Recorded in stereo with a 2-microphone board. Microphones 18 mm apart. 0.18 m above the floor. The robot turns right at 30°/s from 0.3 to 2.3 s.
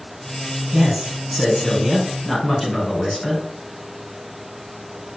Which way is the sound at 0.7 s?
30° right.